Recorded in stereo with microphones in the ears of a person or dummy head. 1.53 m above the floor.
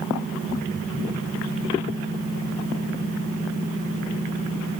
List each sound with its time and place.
Only background noise.